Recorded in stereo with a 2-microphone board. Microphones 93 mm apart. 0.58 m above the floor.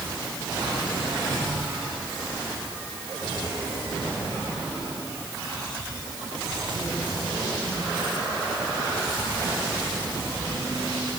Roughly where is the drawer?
I don't hear a drawer.